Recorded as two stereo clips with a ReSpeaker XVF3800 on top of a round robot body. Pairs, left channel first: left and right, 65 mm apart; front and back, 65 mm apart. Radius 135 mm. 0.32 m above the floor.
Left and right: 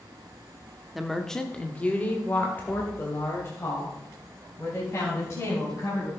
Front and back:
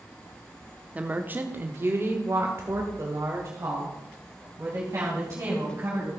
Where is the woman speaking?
175° right, 1.2 m; by 6.1 s 135° left, 4 m.